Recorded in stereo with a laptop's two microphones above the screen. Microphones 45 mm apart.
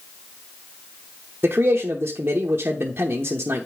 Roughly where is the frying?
I don't hear frying.